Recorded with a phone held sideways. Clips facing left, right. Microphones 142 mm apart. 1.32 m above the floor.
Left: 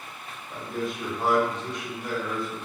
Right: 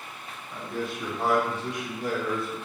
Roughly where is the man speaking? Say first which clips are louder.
Left 1 dB; left.